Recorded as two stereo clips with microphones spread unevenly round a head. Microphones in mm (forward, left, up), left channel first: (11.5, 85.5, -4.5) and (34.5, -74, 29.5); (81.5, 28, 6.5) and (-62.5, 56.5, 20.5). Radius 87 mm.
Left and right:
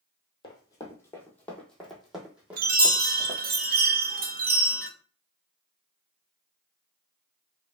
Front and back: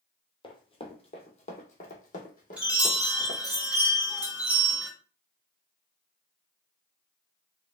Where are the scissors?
No scissors in this recording.